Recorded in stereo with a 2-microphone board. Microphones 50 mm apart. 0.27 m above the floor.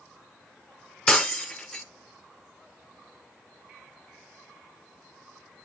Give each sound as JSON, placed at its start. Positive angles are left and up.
{"t": 1.1, "sound": "breaking glass", "side_deg": 15, "distance_m": 0.6}